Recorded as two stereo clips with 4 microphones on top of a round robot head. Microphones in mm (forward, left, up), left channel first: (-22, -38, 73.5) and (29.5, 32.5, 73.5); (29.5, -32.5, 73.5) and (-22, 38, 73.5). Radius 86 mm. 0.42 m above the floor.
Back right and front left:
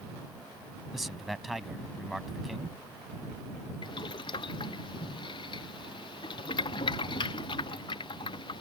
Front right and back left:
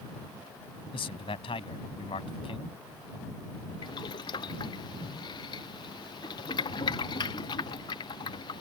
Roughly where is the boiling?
Right.